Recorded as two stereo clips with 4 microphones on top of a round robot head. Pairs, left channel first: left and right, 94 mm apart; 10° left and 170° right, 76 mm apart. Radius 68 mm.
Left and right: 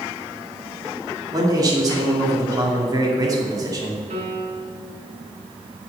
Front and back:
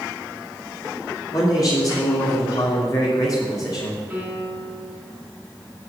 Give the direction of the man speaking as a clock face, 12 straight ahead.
1 o'clock.